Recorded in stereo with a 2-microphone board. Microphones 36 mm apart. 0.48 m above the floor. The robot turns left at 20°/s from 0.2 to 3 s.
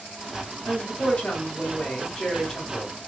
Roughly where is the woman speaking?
Ahead left.